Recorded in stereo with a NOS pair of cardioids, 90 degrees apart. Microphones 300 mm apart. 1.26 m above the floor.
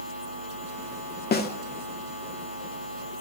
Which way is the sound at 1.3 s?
35° left.